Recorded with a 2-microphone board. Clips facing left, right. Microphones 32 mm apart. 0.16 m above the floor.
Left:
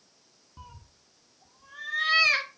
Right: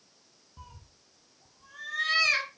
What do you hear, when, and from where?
0.6 s a cat meowing: 15° left (ahead or behind), 0.8 m